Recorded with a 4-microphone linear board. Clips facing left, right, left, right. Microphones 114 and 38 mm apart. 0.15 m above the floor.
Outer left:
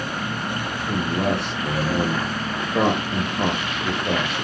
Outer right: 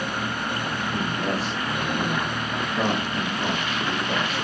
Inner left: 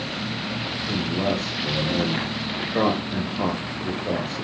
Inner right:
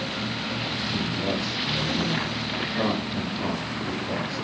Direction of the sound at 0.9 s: 80° left.